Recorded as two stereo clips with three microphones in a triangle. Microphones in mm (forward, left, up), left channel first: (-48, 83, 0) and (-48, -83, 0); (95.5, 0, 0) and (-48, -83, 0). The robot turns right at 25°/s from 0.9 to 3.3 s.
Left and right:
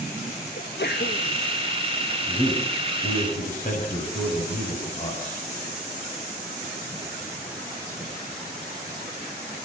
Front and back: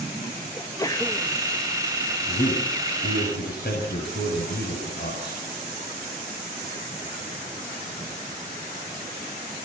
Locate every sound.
0.6 s a sneeze: 100° left, 1.5 m; by 1.3 s 110° left, 1.5 m
2.3 s a man speaking: 25° left, 7 m; by 5.4 s 50° left, 7 m